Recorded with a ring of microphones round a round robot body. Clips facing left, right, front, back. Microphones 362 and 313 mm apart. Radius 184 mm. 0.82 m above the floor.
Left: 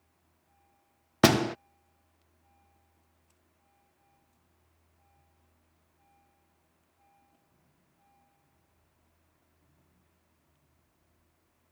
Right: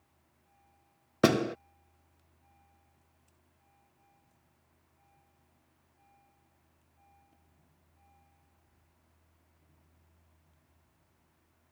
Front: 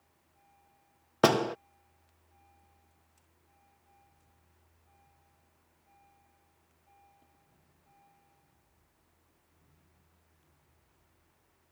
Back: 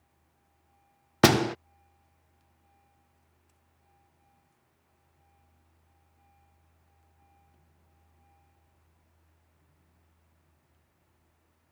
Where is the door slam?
150° left.